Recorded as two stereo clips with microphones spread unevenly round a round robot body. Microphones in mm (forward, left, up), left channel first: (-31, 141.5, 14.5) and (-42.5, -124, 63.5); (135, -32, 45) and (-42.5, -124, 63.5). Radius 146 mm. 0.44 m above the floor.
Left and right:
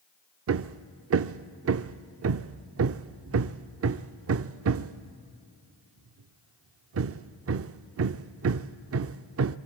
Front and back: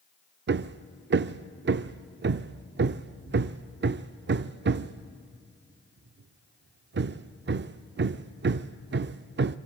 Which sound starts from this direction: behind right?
Hammering, at 0.5 s.